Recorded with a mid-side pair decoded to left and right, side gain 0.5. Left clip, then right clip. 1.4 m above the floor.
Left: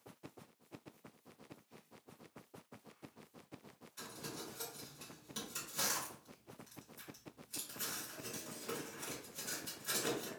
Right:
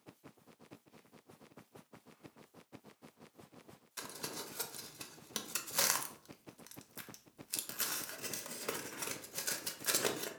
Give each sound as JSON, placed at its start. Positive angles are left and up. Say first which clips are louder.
{"t": 4.0, "sound": "crumpling", "louder": "right 3 dB", "azimuth_deg": -70, "distance_m": 0.5}